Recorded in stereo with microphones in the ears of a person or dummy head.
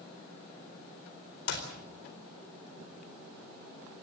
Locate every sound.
1.5 s a clap: 70° left (ahead or behind), 4 m